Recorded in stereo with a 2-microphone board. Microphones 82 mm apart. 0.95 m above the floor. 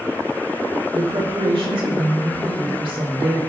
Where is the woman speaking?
80° right, 4 m.